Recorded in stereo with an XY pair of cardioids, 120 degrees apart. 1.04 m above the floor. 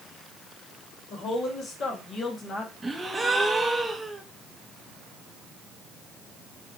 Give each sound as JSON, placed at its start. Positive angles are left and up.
{"t": 1.1, "sound": "a woman speaking", "azimuth_deg": 55, "distance_m": 1.9}
{"t": 2.8, "sound": "a gasp", "azimuth_deg": -15, "distance_m": 0.6}